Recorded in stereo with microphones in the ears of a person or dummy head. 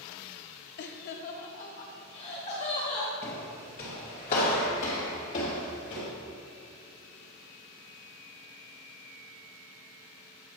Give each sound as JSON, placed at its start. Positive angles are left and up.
{"t": 0.8, "sound": "laughter", "side_deg": 65, "distance_m": 0.5}
{"t": 3.2, "sound": "footsteps", "side_deg": 15, "distance_m": 1.7}